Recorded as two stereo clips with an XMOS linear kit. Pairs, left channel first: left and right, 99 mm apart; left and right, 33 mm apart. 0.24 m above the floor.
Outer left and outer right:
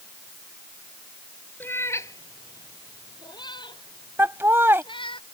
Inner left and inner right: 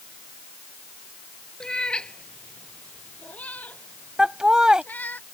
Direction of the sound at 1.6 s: 20° left (ahead or behind).